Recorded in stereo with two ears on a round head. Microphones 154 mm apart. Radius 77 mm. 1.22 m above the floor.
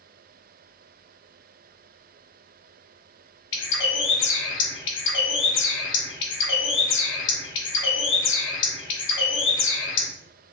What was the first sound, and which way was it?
A bird, 80° left.